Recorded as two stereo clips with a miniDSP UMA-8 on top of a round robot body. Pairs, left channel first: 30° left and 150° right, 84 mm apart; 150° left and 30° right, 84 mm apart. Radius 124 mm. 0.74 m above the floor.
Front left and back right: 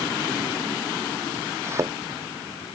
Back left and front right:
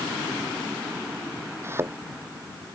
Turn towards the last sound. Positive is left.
turn(degrees=-90)